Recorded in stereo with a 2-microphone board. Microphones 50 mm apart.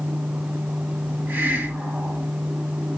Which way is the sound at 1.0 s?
45° right (ahead or behind).